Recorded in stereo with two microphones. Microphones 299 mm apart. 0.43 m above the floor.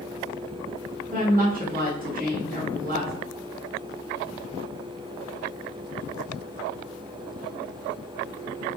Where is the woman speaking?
30° right (ahead or behind), 1.0 m.